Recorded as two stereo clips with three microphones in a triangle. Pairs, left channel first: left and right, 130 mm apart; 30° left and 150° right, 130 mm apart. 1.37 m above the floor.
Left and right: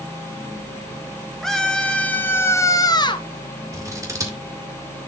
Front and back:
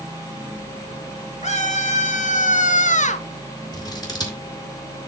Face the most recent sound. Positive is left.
turn(degrees=-25)